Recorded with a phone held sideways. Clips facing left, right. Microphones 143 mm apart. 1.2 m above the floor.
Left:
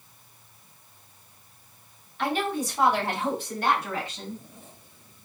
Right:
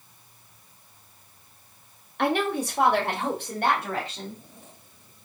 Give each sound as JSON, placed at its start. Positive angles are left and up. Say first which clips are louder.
{"t": 2.2, "sound": "a woman speaking", "louder": "right 3 dB", "side_deg": -65, "distance_m": 0.7}